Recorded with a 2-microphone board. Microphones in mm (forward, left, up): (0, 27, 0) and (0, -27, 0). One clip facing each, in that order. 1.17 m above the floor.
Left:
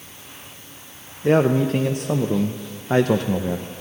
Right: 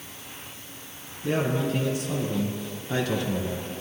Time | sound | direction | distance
1.2 | a man speaking | 50° left (ahead or behind) | 0.6 m